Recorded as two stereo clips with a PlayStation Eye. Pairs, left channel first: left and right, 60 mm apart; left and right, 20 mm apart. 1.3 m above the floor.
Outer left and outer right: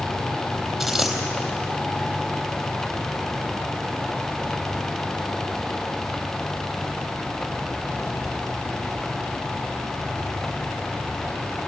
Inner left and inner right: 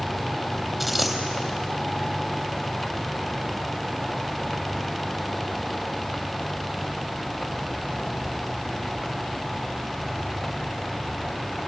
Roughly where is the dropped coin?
Centre.